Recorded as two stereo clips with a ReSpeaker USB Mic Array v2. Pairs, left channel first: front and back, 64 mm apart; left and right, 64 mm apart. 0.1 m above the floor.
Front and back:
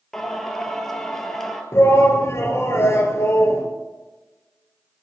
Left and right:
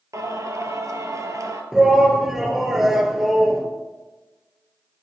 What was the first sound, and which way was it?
Singing, 85° right.